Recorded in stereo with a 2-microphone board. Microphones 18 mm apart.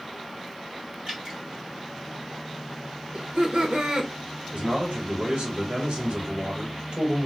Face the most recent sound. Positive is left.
turn(degrees=-80)